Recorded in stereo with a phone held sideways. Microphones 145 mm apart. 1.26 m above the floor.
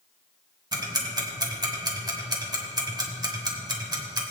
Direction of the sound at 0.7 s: 30° right (ahead or behind).